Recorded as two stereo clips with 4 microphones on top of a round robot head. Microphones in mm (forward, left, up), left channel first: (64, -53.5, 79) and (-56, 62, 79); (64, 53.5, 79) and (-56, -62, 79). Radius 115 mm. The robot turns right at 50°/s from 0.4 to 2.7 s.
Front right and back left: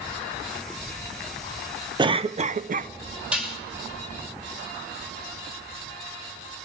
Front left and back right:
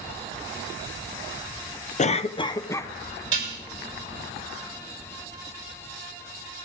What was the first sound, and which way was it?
A cough, 75° left.